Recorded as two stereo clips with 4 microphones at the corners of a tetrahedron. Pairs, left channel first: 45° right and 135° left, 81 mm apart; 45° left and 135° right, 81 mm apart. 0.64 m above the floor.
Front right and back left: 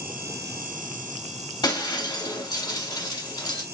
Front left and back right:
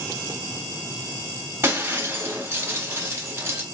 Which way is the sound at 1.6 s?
75° right.